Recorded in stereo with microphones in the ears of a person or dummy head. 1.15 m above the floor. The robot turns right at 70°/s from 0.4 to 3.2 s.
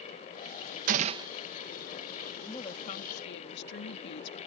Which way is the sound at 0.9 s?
45° right (ahead or behind).